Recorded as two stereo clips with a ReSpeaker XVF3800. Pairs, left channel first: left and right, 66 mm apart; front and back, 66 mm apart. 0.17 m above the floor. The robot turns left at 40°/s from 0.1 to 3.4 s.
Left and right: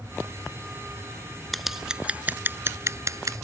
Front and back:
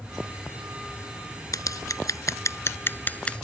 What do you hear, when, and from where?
1.5 s scissors: straight ahead; by 3.5 s 75° right